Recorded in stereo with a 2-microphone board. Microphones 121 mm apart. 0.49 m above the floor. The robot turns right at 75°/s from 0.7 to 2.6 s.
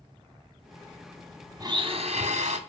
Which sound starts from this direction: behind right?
A blender, at 1.6 s.